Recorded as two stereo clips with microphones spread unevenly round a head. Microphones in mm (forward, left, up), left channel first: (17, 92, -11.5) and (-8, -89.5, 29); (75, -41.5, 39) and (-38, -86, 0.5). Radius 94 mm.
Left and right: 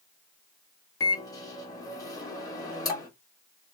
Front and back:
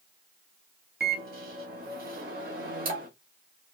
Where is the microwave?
160° left, 1.2 m.